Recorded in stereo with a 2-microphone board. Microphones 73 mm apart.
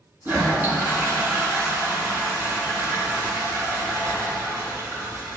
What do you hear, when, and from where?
0.2 s a toilet flushing: 25° right (ahead or behind), 4 m